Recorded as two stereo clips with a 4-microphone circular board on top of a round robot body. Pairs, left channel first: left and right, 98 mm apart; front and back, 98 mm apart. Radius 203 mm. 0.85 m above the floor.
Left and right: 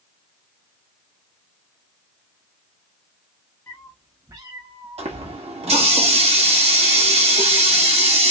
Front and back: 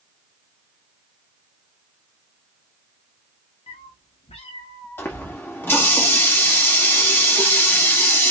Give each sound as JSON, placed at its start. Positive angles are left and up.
{"t": 3.7, "sound": "a cat meowing", "azimuth_deg": 20, "distance_m": 0.5}
{"t": 5.0, "sound": "a running tap", "azimuth_deg": -70, "distance_m": 1.5}